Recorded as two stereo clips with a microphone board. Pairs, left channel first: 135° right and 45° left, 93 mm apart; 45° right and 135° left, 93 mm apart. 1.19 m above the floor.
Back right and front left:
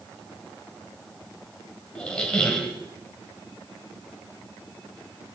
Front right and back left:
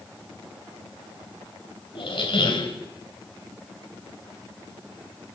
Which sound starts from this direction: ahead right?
A squeak, at 1.9 s.